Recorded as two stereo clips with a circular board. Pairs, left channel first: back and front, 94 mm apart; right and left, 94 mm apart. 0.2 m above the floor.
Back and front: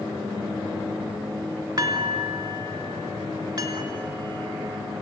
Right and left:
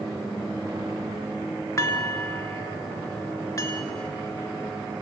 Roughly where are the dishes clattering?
Ahead right.